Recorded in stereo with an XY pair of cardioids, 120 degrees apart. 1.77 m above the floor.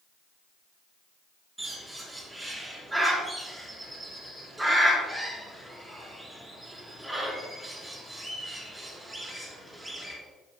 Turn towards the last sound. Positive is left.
turn(degrees=-10)